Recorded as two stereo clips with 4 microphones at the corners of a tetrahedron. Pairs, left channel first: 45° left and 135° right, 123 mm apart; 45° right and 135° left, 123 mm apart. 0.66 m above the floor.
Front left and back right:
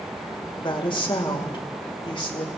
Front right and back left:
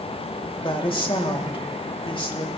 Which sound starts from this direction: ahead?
A woman speaking, at 0.6 s.